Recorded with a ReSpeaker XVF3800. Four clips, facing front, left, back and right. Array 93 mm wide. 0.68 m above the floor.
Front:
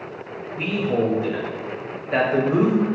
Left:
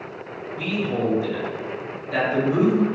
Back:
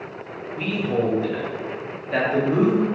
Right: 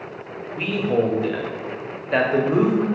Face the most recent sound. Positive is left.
turn(degrees=-85)